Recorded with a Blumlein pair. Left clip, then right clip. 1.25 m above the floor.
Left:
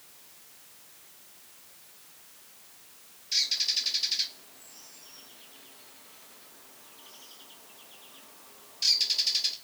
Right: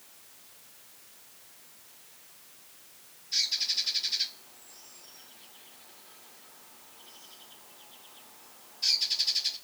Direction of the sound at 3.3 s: 55° left.